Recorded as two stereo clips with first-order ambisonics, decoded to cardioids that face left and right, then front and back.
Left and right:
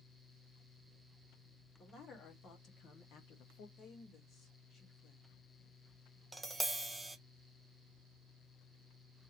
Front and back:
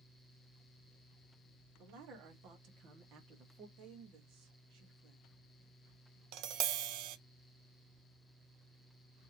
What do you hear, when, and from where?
1.8 s a man speaking: 155° left, 2 m; by 3.7 s 120° left, 1.2 m
3.8 s a woman speaking: 150° left, 1.9 m
6.3 s tapping: 175° right, 0.6 m